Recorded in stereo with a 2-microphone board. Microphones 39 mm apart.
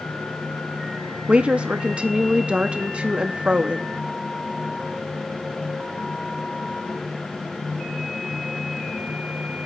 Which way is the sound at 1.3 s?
30° right (ahead or behind).